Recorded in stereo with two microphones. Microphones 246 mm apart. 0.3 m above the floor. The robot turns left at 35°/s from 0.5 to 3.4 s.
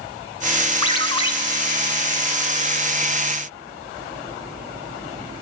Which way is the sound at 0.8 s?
20° left (ahead or behind).